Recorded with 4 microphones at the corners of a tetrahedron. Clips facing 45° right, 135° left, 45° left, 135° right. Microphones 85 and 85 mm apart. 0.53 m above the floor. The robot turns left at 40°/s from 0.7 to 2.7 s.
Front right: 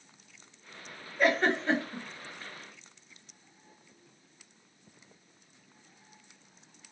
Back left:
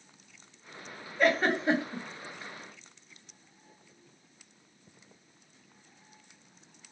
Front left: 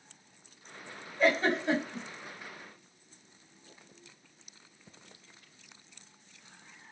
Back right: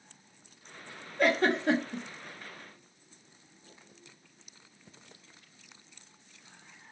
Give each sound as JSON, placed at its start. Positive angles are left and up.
{"t": 1.2, "sound": "a giggle", "azimuth_deg": -130, "distance_m": 0.9}